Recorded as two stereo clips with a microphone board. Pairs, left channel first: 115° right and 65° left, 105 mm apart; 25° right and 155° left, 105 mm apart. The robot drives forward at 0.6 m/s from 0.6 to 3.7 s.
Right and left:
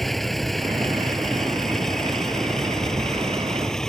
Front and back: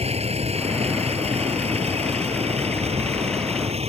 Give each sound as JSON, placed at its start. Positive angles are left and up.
{"t": 0.0, "sound": "a vehicle", "azimuth_deg": 160}